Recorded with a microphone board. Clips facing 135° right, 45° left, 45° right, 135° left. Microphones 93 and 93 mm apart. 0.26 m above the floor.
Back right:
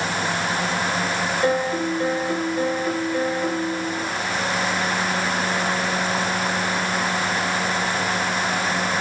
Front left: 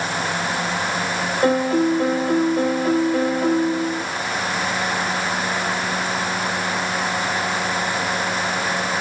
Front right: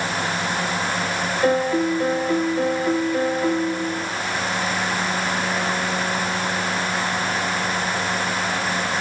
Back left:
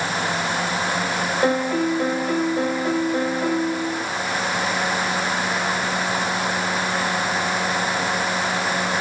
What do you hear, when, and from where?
1.4 s a piano: 90° left, 4.5 m